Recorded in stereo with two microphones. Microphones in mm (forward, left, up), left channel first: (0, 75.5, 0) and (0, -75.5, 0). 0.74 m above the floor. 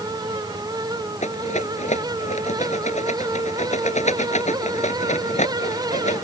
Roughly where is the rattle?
Left.